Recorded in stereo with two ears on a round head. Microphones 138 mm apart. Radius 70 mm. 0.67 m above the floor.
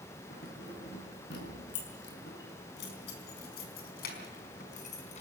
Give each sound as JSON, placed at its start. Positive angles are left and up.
{"t": 0.3, "sound": "keys jangling", "side_deg": 65, "distance_m": 6.5}